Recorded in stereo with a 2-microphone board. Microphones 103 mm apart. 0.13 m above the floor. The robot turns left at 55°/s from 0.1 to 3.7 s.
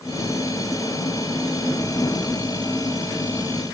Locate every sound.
Only background noise.